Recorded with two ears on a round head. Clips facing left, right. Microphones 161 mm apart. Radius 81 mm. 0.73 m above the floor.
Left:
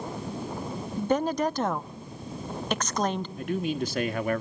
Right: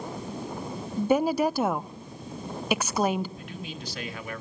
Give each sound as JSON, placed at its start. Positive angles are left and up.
{"t": 1.0, "sound": "a woman speaking", "side_deg": -5, "distance_m": 0.7}
{"t": 3.4, "sound": "a man speaking", "side_deg": 45, "distance_m": 1.4}